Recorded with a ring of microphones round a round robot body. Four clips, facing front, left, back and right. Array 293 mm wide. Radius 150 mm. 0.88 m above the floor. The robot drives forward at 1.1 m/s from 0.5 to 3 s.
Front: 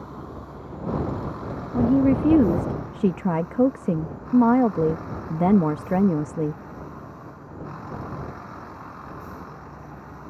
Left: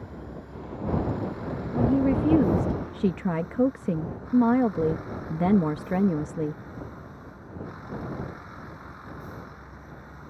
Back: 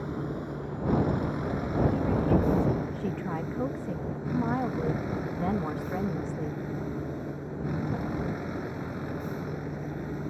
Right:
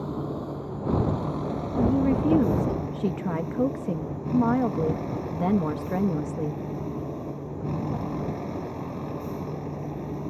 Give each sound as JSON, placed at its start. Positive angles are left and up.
{"t": 0.0, "sound": "a vehicle", "azimuth_deg": -115}
{"t": 1.7, "sound": "a woman speaking", "azimuth_deg": 5}